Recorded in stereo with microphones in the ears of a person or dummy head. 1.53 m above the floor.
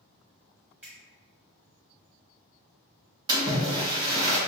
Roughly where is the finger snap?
Centre.